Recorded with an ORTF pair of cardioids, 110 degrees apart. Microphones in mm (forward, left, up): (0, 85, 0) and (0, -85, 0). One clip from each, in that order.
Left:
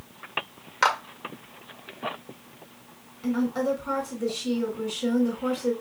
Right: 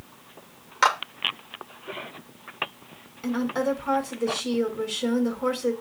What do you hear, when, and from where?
0.8 s a clap: 10° right, 1.4 m
3.2 s a woman speaking: 25° right, 2.5 m